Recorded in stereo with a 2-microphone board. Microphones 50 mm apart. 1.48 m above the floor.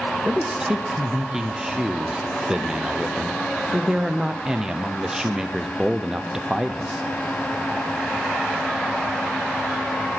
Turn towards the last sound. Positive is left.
turn(degrees=-15)  # may be behind; listen again after turning